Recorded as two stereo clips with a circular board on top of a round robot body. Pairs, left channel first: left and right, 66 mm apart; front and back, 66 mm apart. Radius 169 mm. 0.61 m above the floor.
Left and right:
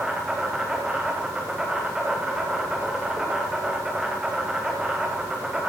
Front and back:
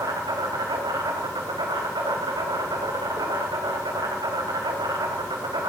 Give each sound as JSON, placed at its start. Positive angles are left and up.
{"t": 0.0, "sound": "an insect", "azimuth_deg": -170, "distance_m": 3.0}